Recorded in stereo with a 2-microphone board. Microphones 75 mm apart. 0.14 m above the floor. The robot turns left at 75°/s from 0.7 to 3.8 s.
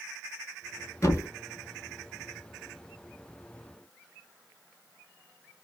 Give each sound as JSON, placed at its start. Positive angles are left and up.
{"t": 1.0, "sound": "a thud", "side_deg": 45, "distance_m": 0.9}